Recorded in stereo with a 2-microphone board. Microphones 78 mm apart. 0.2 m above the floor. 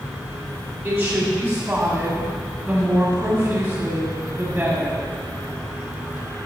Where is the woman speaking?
20° right (ahead or behind), 1.6 m.